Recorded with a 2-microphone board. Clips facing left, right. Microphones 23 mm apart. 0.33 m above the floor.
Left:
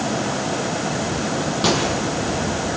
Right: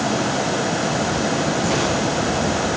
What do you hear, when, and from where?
1.6 s a microwave: 85° left, 9 m